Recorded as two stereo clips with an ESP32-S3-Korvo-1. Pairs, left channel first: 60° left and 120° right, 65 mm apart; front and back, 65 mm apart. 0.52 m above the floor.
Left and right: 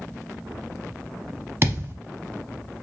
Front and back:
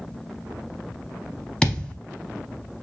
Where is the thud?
80° right, 0.8 m.